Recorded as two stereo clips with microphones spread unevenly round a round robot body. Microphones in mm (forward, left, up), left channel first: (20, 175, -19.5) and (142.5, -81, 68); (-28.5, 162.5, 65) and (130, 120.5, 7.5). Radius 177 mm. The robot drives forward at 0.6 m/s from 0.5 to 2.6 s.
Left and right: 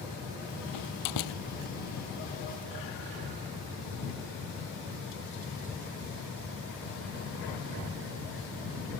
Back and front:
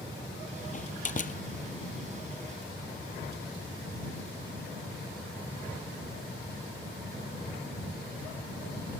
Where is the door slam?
130° left.